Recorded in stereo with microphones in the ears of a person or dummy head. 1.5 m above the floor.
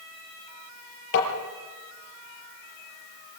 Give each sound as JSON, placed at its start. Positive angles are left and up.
{"t": 1.1, "sound": "tapping", "side_deg": 60, "distance_m": 6.0}